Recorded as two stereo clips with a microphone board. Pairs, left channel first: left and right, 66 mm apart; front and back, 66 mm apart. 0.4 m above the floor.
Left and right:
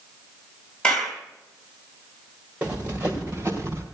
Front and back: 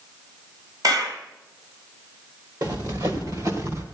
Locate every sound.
0.8 s a clap: 165° left, 2 m
2.6 s running footsteps: 160° right, 4 m; by 3.8 s 145° right, 4 m